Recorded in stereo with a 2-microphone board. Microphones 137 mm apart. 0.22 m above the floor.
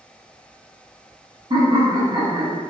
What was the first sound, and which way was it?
Laughter, 35° right (ahead or behind).